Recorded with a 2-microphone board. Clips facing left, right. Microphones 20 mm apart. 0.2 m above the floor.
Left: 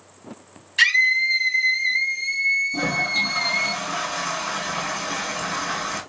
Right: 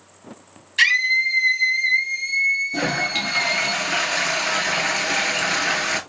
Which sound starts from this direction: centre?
A scream, at 0.8 s.